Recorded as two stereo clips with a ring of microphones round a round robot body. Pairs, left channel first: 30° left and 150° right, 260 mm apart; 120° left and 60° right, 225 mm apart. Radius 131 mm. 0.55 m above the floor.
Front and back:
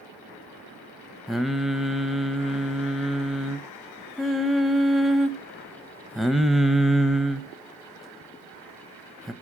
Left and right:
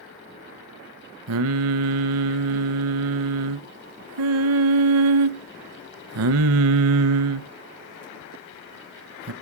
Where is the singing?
60° right, 0.5 m.